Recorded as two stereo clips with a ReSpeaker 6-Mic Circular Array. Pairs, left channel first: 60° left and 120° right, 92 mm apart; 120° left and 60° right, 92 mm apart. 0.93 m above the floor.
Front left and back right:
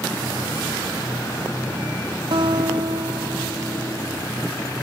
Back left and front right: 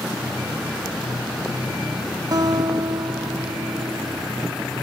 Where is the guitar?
100° right.